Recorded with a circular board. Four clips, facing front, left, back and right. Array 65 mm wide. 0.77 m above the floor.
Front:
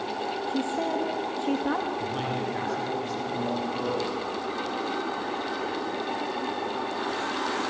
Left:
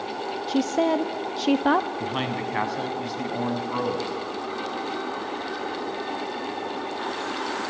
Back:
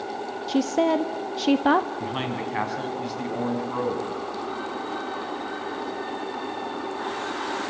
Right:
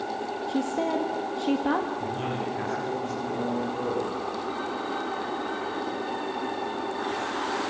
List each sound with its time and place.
0.5 s a woman speaking: 145° left, 1.0 m
2.0 s a man speaking: 120° left, 5.5 m